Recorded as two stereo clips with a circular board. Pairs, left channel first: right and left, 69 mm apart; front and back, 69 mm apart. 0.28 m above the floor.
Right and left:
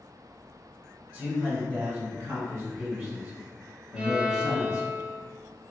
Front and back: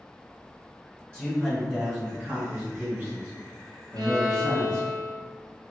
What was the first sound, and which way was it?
A man speaking, 55° left.